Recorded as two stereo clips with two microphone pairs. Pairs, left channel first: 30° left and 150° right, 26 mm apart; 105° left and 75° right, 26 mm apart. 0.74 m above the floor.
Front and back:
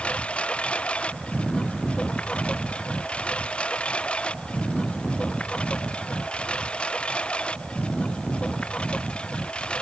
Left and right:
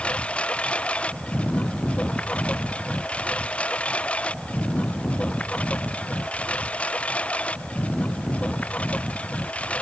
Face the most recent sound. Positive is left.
turn(degrees=75)